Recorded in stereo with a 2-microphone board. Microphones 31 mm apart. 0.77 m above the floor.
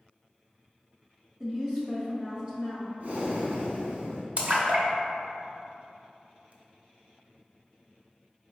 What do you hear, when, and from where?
1.4 s a woman speaking: 25° right (ahead or behind), 1.1 m
3.0 s breathing: 60° right (ahead or behind), 1.1 m
4.4 s a splash: 50° right (ahead or behind), 0.8 m